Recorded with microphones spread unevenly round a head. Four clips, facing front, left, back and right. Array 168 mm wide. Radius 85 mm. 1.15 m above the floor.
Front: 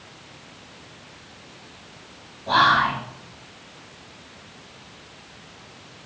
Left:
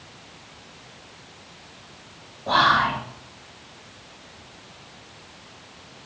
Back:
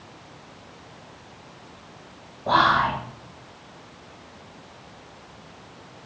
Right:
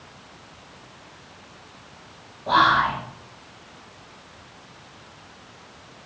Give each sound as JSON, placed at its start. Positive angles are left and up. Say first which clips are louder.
{"t": 2.5, "sound": "whispering", "louder": "right 1 dB, front 1 dB", "azimuth_deg": 170, "distance_m": 0.6}